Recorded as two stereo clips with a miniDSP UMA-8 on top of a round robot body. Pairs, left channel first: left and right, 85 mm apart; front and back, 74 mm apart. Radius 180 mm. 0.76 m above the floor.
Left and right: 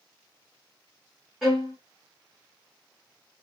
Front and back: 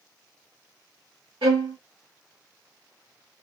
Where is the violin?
Straight behind, 0.5 m.